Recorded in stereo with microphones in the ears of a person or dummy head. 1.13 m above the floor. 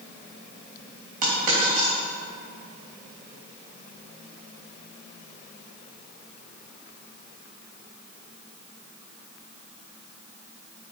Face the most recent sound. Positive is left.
turn(degrees=-45)  # may be behind; listen again after turning